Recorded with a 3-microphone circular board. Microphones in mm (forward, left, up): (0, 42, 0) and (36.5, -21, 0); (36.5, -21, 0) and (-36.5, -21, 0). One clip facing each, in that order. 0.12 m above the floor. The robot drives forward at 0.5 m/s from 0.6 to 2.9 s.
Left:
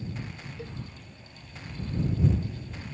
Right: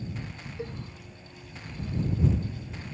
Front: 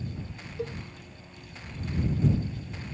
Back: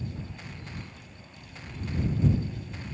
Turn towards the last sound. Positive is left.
turn(degrees=10)